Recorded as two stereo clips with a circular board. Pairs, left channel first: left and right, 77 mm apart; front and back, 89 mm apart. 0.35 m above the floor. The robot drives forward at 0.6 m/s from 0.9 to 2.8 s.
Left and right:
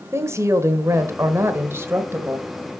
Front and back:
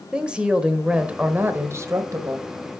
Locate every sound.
0.1 s a woman speaking: 105° right, 1.3 m; by 2.7 s 150° right, 1.8 m